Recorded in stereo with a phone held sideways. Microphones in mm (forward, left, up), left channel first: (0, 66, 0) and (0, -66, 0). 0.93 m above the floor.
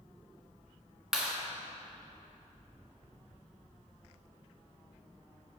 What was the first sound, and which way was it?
A clap, 5° right (ahead or behind).